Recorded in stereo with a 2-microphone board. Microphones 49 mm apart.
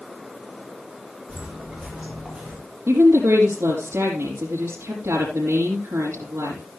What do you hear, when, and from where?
1.3 s footsteps: 5° right (ahead or behind), 9.5 m; by 2.6 s centre (ahead or behind), 9 m
2.9 s a woman speaking: 60° right (ahead or behind), 4.5 m